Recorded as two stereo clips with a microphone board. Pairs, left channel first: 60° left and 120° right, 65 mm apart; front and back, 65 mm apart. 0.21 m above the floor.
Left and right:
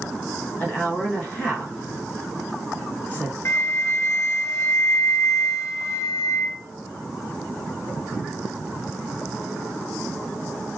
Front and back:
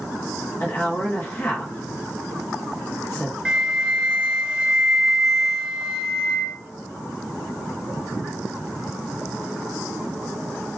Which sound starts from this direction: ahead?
A woman speaking, at 0.6 s.